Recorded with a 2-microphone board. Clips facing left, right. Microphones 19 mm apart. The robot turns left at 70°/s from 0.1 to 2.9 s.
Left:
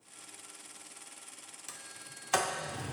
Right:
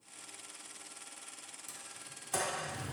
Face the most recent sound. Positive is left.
turn(degrees=35)  # may be behind; listen again after turning